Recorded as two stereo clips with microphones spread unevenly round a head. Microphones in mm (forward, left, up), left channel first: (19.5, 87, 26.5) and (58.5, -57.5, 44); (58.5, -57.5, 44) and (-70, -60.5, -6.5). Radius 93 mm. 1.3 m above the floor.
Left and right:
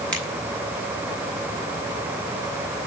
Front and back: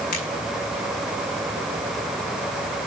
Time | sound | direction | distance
0.1 | a finger snap | 20° left | 9 m